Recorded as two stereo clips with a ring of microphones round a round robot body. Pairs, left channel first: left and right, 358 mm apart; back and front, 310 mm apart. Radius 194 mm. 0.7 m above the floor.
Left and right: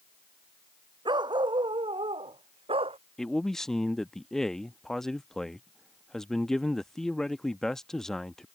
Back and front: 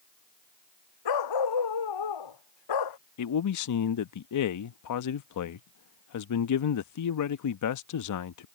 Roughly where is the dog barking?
Behind.